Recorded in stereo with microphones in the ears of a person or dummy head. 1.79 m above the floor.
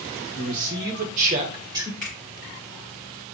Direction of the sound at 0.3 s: 70° right (ahead or behind).